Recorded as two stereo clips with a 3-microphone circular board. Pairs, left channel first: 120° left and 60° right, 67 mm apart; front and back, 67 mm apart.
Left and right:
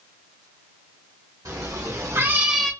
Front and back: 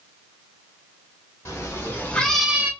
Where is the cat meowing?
40° right, 1.2 m; by 2.7 s 165° right, 0.6 m.